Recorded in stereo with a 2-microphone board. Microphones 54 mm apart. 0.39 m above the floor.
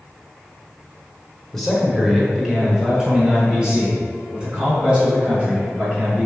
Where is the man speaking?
5° left (ahead or behind), 1.0 m; by 6.3 s 20° right (ahead or behind), 5 m.